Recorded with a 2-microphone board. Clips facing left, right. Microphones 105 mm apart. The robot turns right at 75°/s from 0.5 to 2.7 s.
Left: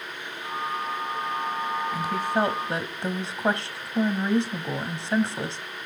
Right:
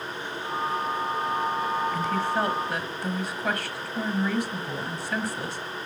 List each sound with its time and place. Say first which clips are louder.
1.9 s a woman speaking: even; 10° left (ahead or behind), 1.1 m; by 5.6 s 30° left (ahead or behind), 1.1 m